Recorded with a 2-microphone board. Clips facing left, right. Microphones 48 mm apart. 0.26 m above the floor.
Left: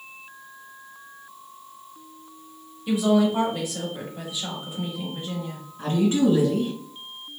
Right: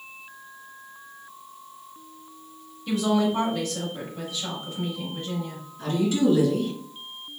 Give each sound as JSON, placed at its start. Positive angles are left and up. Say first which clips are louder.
{"t": 2.9, "sound": "a woman speaking", "louder": "left 3 dB", "side_deg": 15, "distance_m": 0.9}
{"t": 5.8, "sound": "a woman speaking", "louder": "left 2 dB", "side_deg": 40, "distance_m": 1.7}